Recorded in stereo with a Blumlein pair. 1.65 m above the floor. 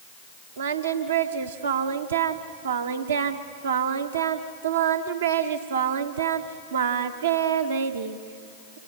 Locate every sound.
0.6 s singing: 65° right, 1.0 m